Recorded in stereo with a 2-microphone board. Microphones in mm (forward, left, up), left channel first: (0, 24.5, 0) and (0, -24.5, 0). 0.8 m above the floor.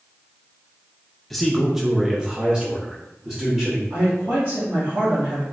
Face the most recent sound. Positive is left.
turn(degrees=-55)  # may be behind; listen again after turning